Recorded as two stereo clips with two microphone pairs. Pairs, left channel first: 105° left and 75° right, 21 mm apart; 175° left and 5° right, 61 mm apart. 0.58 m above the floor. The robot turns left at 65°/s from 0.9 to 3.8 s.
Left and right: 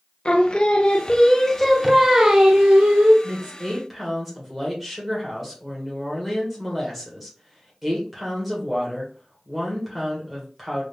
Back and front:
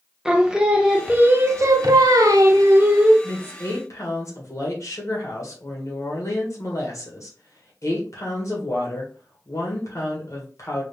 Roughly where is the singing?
Left.